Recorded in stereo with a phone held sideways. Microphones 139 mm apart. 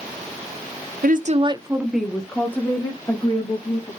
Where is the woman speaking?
75° right (ahead or behind), 0.9 m; by 3.9 s 25° left (ahead or behind), 3.5 m.